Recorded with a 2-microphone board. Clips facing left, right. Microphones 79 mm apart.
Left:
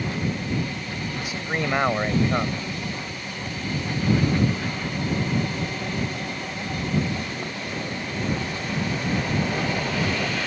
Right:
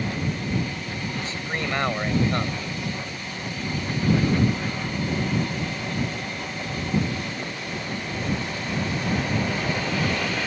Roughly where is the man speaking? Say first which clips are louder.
Left 5 dB; centre.